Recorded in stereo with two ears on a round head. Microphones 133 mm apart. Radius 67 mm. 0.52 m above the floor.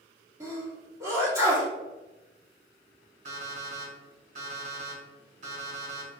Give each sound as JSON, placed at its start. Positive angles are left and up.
{"t": 0.4, "sound": "a sneeze", "side_deg": -20, "distance_m": 1.3}
{"t": 3.2, "sound": "an alarm clock", "side_deg": -65, "distance_m": 1.9}